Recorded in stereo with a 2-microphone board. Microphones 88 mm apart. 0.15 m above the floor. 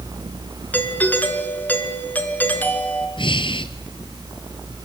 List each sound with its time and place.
0.7 s a doorbell: 20° left (ahead or behind), 2.5 m
3.2 s breathing: 65° left (ahead or behind), 1.5 m